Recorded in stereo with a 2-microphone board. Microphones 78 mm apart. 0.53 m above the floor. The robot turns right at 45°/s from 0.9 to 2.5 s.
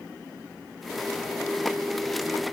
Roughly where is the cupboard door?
No cupboard door in this recording.